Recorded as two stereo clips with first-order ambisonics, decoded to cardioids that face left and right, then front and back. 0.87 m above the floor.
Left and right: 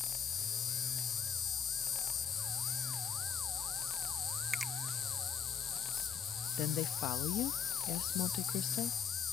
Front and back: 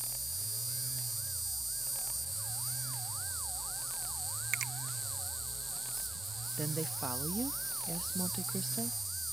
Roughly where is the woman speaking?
Left.